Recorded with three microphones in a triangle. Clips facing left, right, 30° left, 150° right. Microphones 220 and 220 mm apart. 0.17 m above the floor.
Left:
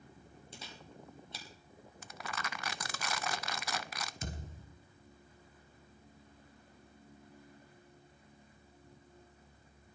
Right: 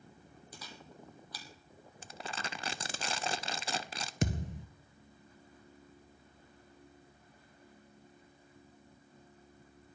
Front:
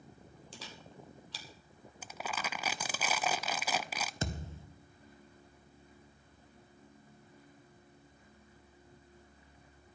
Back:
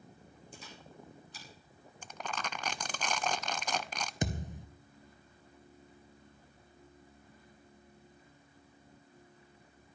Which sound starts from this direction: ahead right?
Crumpling, at 2.0 s.